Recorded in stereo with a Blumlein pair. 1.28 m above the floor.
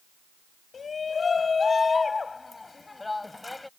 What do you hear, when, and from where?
0.7 s a shout: 20° left; by 3.7 s 5° left